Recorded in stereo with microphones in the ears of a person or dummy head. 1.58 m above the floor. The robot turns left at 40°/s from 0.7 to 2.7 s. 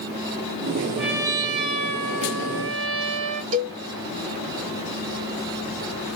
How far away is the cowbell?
About 1.8 m.